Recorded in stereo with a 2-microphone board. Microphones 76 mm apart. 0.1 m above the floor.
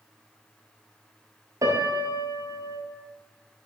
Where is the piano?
55° right (ahead or behind), 0.7 m.